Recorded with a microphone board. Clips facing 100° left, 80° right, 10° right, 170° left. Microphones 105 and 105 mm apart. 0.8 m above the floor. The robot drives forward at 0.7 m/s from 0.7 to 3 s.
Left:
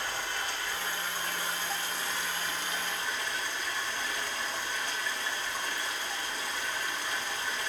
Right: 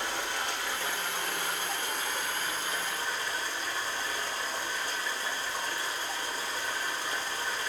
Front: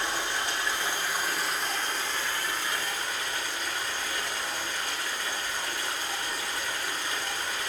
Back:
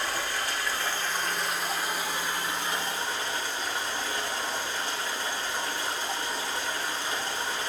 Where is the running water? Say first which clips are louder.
Right 2 dB, even; 80° right, 1.5 m; by 7.7 s 130° right, 2 m.